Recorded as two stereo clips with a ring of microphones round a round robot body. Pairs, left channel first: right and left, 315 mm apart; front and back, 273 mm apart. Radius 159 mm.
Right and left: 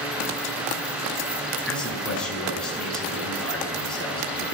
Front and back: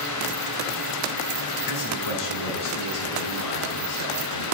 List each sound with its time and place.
1.7 s a man speaking: straight ahead, 9 m